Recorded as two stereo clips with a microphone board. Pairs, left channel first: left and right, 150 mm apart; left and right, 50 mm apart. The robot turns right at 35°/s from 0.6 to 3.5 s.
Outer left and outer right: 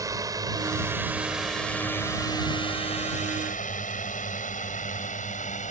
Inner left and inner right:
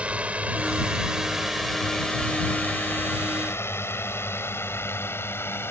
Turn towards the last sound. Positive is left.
turn(degrees=55)  # may be behind; listen again after turning